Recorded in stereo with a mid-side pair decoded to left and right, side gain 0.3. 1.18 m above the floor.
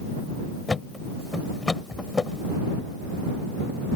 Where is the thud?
35° left.